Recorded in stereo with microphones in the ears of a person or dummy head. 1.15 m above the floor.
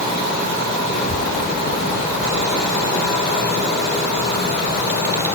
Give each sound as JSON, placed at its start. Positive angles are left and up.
{"t": 0.9, "sound": "a child speaking", "side_deg": 75}